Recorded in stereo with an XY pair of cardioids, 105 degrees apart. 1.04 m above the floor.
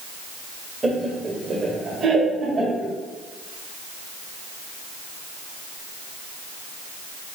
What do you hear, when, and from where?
0.8 s laughter: 25° right, 0.6 m; by 2.9 s 70° right, 1.7 m